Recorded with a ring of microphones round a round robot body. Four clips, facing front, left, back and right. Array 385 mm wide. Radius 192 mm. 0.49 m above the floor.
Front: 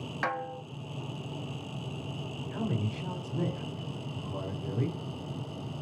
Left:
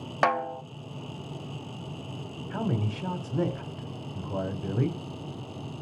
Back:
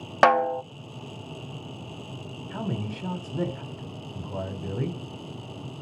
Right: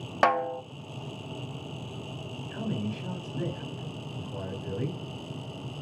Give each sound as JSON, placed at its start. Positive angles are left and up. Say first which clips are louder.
{"t": 0.2, "sound": "a snare drum", "louder": "right 1 dB, back 15 dB", "azimuth_deg": 180, "distance_m": 0.5}
{"t": 2.5, "sound": "a man speaking", "louder": "left 3 dB, back 2 dB", "azimuth_deg": 120, "distance_m": 2.0}